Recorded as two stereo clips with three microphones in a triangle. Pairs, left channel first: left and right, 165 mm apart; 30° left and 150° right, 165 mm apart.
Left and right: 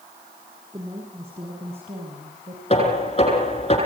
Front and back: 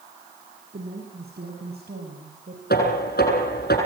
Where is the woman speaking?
150° right, 6.5 m; by 2.6 s 135° right, 6 m.